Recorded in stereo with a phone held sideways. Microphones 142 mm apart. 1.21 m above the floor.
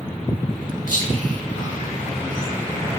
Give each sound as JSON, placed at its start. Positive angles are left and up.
{"t": 0.9, "sound": "whispering", "side_deg": 75, "distance_m": 1.3}